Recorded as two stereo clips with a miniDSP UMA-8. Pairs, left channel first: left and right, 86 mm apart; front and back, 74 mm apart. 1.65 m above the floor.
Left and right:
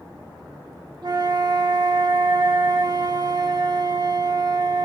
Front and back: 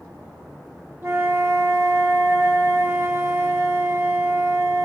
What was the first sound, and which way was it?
A flute, 125° right.